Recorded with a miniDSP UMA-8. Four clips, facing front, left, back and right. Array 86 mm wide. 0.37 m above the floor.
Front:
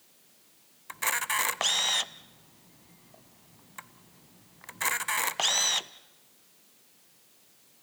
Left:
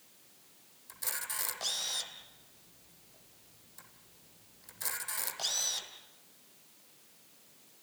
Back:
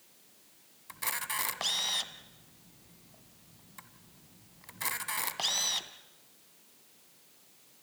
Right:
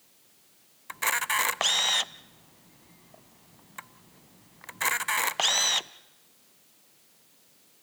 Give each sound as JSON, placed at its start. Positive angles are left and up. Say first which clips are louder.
{"t": 0.9, "sound": "a camera shutter", "louder": "right 16 dB, front 7 dB", "azimuth_deg": -65, "distance_m": 0.5}